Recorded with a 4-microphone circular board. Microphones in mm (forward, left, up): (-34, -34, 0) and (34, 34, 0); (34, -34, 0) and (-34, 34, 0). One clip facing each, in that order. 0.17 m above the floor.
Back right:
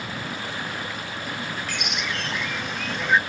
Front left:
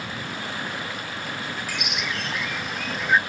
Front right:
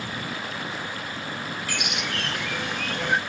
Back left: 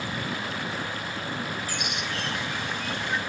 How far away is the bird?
About 0.6 m.